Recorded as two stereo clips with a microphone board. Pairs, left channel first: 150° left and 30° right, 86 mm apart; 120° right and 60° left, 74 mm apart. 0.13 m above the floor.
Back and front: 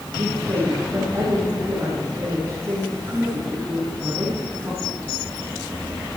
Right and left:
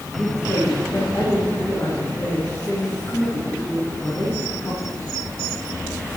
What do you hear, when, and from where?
0.2 s a woman speaking: 80° right, 7 m